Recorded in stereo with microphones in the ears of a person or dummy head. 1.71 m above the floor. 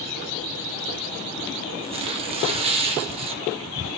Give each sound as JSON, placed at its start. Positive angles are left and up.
{"t": 1.8, "sound": "tearing paper", "side_deg": -30, "distance_m": 1.2}